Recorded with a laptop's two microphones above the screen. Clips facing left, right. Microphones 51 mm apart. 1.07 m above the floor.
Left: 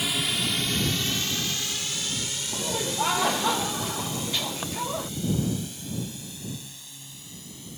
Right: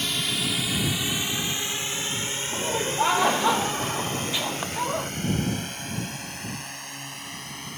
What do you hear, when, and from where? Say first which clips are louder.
0.0 s a drone: even; 5° left (ahead or behind); by 7.8 s 60° right (ahead or behind)
2.5 s laughter: right 3 dB; 15° right (ahead or behind)